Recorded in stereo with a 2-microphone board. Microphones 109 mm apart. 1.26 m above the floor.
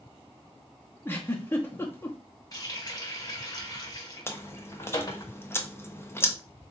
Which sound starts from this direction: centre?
A giggle, at 1.1 s.